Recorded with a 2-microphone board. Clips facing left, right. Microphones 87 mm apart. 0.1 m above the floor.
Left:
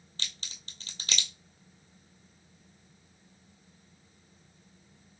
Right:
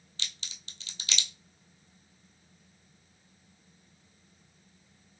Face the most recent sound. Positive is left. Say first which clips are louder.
# left 1 dB
turn(degrees=40)  # may be behind; listen again after turning